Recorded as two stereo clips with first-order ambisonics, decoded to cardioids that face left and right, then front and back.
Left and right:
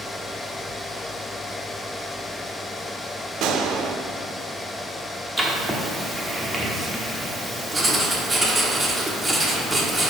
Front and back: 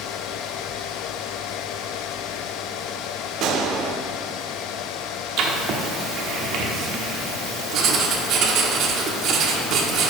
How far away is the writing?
About 1.0 m.